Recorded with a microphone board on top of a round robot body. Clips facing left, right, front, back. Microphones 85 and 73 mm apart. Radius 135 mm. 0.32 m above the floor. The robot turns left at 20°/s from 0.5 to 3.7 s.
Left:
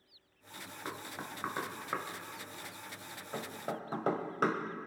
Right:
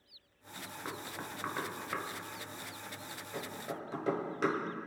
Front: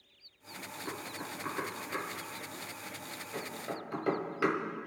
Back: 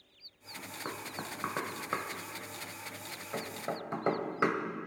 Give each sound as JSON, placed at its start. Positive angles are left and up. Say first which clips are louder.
{"t": 0.8, "sound": "knocking", "louder": "even, back 1 dB", "azimuth_deg": 175, "distance_m": 2.0}